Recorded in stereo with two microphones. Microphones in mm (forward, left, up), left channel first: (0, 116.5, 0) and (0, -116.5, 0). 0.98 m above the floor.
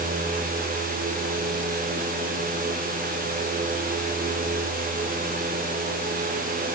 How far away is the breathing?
I don't hear breathing.